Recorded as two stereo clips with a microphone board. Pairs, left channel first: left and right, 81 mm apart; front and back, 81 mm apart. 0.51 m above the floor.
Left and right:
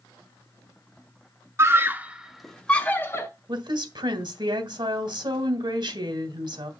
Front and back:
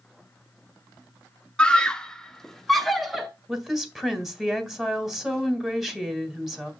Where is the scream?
70° right, 0.9 m; by 3.3 s 90° left, 0.9 m.